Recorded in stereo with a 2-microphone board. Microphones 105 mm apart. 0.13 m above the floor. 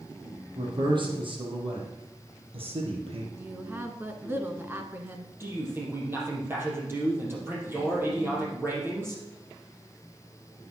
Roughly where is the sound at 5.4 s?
Right.